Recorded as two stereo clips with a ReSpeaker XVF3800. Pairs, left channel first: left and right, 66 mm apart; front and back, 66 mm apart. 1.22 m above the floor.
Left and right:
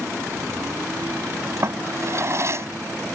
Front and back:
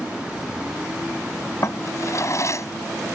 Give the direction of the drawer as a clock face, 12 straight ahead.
1 o'clock.